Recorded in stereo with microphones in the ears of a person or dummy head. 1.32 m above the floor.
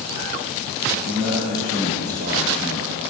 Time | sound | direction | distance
0.9 | a man speaking | 65° right (ahead or behind) | 5.5 m